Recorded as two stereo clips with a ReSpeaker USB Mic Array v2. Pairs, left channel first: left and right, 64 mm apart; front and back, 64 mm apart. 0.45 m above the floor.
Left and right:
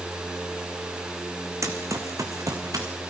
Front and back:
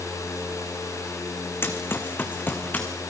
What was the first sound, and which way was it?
Running footsteps, 55° right.